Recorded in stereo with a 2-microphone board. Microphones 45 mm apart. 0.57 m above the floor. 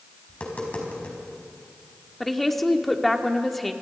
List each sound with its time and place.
0.3 s tapping: 30° left (ahead or behind), 5 m
2.2 s a woman speaking: 5° left (ahead or behind), 1.5 m